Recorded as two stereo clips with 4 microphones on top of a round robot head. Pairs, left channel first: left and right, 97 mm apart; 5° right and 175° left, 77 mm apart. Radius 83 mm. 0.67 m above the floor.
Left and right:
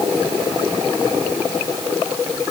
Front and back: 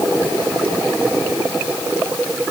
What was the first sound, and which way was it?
Only background noise.